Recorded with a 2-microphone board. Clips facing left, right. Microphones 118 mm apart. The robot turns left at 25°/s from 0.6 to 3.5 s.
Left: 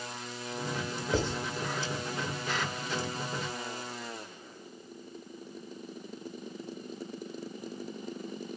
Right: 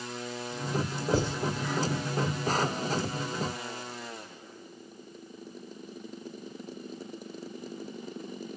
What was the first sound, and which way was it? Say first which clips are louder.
Writing: right 2 dB; 10° right (ahead or behind).